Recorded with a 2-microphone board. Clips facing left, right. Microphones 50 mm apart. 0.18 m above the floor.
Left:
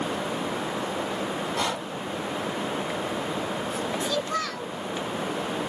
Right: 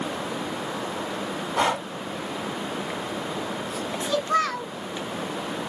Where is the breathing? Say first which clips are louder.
Right 8 dB; 30° right (ahead or behind), 0.6 m.